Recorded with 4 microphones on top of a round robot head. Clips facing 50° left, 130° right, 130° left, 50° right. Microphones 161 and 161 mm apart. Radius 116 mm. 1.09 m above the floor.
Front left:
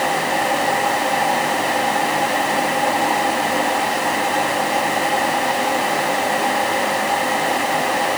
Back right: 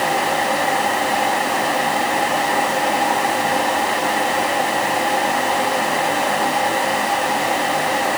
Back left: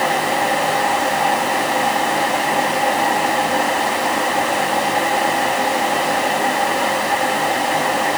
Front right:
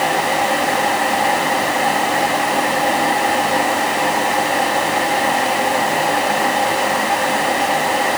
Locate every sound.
Only background noise.